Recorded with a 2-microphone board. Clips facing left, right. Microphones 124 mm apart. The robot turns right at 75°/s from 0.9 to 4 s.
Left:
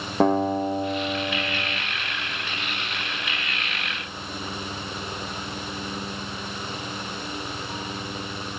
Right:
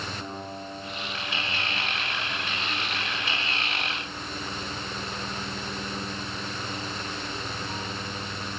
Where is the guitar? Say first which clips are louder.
Left 16 dB; 90° left, 2.5 m; by 1.8 s 155° left, 2.5 m.